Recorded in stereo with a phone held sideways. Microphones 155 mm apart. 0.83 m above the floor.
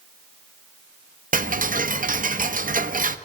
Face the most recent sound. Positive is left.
turn(degrees=-55)  # may be behind; listen again after turning